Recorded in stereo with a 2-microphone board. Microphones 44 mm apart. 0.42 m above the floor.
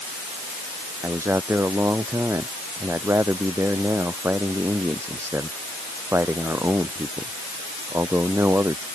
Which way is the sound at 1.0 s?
85° right.